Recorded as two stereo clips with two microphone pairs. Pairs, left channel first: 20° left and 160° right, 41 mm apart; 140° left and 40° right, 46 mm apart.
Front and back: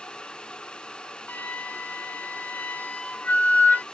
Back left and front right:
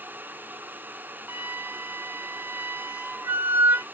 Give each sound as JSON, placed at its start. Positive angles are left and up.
{"t": 1.3, "sound": "a flute", "azimuth_deg": -20, "distance_m": 0.6}